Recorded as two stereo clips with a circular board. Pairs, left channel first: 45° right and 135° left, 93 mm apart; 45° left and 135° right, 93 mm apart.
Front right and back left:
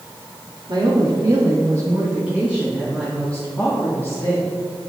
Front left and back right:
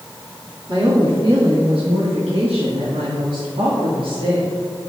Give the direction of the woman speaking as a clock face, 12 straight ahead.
6 o'clock.